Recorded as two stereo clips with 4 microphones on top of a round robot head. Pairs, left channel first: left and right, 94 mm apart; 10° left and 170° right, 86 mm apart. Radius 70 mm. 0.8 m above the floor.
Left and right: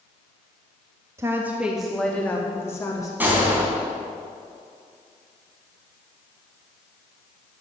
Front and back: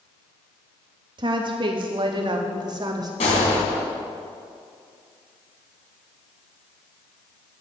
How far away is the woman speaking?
About 1.3 m.